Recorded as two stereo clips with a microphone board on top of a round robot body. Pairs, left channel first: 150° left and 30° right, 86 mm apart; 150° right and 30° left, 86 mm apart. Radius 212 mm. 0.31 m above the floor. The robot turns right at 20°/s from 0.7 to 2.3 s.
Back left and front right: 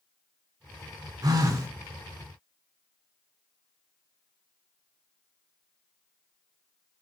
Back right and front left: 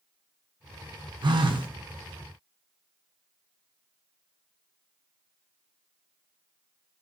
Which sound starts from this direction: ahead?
A phone buzzing, at 1.2 s.